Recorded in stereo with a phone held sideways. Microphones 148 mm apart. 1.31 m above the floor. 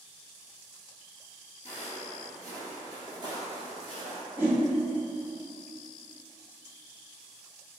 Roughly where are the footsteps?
Centre.